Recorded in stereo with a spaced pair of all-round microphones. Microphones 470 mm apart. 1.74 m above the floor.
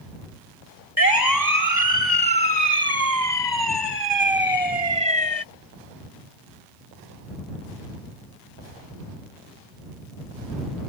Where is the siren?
45° left (ahead or behind); by 5.4 s 65° left (ahead or behind).